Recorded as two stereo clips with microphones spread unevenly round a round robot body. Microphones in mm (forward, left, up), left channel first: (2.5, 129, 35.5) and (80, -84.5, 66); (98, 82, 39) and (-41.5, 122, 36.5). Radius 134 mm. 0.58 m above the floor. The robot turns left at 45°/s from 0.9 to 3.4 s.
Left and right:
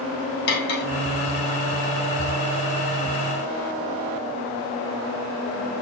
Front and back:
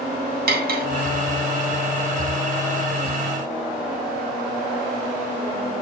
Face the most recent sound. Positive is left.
turn(degrees=45)